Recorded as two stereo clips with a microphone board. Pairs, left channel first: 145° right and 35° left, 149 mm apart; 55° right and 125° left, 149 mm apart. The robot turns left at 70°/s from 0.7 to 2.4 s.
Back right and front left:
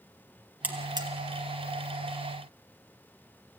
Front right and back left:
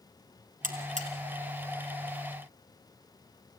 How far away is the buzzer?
About 2 m.